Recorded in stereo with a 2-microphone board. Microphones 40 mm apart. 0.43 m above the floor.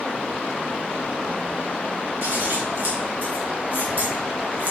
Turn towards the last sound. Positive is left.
turn(degrees=-65)  # may be behind; listen again after turning